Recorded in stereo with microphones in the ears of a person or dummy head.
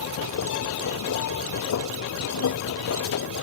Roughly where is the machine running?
Left.